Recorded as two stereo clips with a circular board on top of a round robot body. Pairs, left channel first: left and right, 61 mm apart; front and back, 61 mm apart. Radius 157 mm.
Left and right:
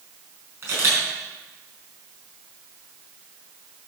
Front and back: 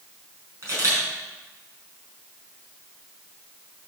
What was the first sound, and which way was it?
A camera shutter, 135° right.